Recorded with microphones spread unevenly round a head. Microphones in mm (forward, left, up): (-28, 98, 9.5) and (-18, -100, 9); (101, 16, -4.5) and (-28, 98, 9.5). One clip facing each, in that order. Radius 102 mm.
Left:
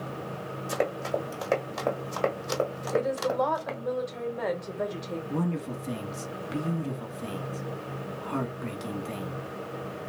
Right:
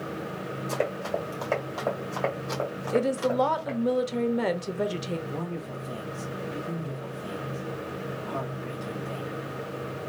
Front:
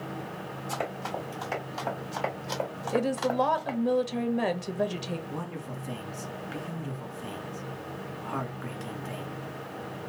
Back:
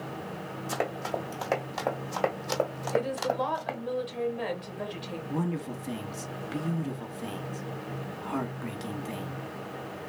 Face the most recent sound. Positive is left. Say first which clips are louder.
# left 4 dB, back 5 dB
turn(degrees=95)